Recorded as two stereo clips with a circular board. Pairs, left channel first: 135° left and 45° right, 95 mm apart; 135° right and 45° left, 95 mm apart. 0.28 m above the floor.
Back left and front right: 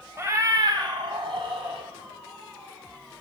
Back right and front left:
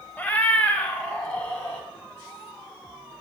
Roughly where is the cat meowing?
Right.